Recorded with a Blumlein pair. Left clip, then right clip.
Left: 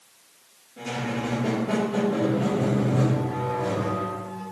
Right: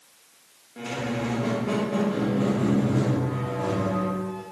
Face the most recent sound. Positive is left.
turn(degrees=-45)